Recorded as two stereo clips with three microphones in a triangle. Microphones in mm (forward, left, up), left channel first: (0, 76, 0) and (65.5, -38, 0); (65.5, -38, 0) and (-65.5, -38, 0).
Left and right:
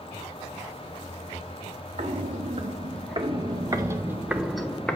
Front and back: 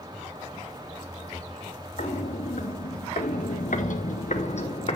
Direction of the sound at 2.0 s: 25° right.